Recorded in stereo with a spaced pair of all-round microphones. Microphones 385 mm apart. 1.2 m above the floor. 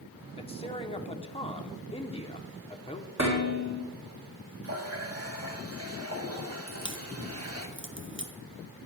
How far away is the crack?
About 1.0 m.